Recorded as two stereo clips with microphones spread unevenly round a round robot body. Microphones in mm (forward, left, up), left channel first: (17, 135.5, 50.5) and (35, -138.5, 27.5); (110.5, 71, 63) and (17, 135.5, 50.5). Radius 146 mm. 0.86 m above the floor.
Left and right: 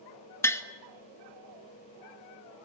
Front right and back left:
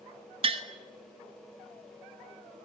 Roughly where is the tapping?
Behind.